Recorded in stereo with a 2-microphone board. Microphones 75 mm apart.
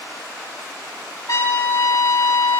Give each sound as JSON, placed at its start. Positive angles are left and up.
{"t": 1.3, "sound": "a trumpet", "side_deg": 45, "distance_m": 8.0}